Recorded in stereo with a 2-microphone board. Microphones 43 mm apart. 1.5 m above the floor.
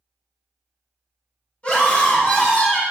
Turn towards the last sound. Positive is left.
turn(degrees=30)  # may be behind; listen again after turning